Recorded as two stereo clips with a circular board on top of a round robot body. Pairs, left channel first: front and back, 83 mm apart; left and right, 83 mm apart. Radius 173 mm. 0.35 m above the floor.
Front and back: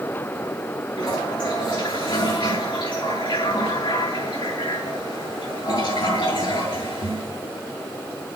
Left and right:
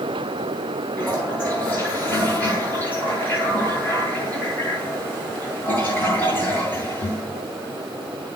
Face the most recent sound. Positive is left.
turn(degrees=20)